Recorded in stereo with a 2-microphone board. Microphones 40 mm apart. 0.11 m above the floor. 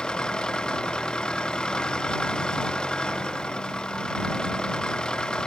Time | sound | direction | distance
0.0 | an engine running | 20° left (ahead or behind) | ?